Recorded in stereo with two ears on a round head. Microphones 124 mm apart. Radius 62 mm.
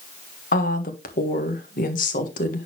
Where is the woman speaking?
65° left (ahead or behind), 1.6 m.